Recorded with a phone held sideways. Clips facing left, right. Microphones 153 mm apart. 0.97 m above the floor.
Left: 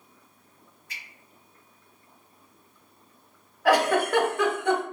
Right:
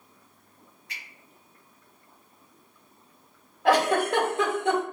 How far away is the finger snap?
About 1.6 m.